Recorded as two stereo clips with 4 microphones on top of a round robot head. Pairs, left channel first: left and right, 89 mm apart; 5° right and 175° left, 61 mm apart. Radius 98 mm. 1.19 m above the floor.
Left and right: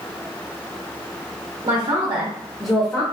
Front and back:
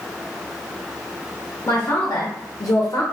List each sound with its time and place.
1.6 s a man speaking: 65° right, 0.8 m; by 3.0 s 30° left, 0.6 m